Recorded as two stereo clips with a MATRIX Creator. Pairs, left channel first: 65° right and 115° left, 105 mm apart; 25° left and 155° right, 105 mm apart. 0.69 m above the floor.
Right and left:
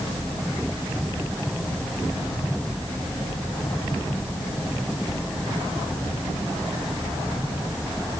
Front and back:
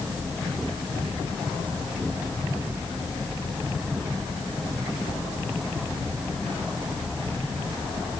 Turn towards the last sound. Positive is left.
No sound to turn to.